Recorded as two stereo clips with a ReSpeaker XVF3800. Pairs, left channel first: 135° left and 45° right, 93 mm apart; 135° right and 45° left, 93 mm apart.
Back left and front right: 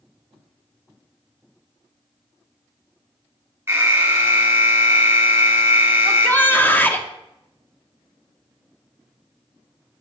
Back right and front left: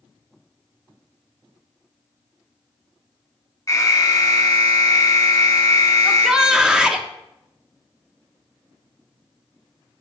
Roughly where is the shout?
Behind left.